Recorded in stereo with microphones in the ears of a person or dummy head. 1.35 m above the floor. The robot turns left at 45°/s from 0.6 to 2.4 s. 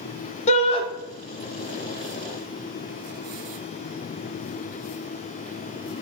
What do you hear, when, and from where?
0.5 s a shout: 35° left (ahead or behind), 1.6 m; by 0.8 s 25° left (ahead or behind), 1.6 m